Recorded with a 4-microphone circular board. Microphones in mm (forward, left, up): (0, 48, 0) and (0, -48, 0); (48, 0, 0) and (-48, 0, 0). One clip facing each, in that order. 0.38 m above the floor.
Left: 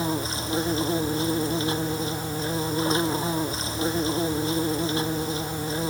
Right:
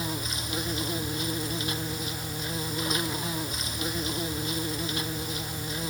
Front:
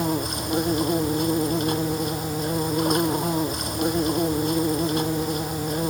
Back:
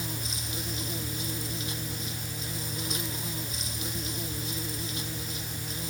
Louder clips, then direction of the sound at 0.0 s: Left 7 dB, front 13 dB; 30° left.